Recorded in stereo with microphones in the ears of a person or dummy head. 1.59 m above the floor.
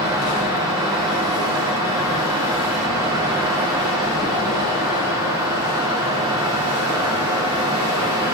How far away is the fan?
About 0.8 m.